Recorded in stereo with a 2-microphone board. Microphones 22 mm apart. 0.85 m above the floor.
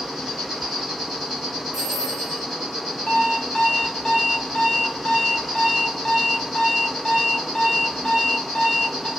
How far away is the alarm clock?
About 0.6 m.